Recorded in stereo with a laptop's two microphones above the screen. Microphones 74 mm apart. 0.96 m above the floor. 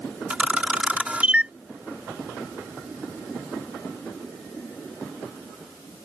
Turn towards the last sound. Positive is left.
turn(degrees=-15)  # may be behind; listen again after turning